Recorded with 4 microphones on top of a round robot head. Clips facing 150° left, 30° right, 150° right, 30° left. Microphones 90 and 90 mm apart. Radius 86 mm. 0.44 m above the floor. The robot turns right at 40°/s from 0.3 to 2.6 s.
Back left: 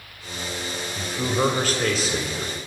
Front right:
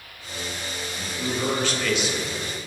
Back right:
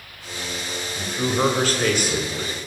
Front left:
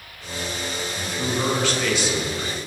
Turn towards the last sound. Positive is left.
turn(degrees=-145)